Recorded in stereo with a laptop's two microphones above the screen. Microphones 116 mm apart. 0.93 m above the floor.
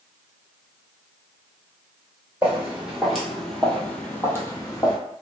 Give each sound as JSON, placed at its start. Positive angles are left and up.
{"t": 2.4, "sound": "footsteps", "side_deg": -10, "distance_m": 1.3}